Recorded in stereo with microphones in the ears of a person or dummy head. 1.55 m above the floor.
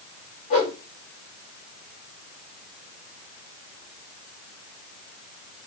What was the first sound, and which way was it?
A whoosh, 30° left (ahead or behind).